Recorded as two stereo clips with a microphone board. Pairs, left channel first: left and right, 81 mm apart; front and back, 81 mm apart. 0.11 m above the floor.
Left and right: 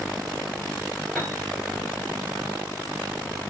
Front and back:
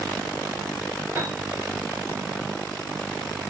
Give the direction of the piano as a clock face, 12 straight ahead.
6 o'clock.